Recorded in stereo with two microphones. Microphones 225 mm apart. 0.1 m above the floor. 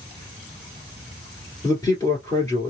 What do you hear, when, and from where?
1.6 s a man speaking: 15° left (ahead or behind), 1.8 m